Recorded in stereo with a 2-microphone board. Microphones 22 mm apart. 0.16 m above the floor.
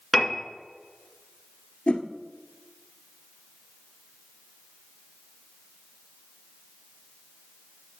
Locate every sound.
0.1 s a piano: centre (ahead or behind), 1.8 m
1.9 s a whoosh: 60° left (ahead or behind), 1.0 m